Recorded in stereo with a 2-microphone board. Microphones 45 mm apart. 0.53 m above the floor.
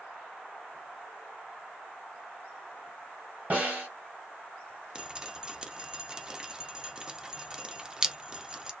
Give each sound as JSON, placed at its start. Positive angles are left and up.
{"t": 3.5, "sound": "a snare drum", "side_deg": -40, "distance_m": 1.7}
{"t": 5.0, "sound": "dripping", "side_deg": -15, "distance_m": 0.5}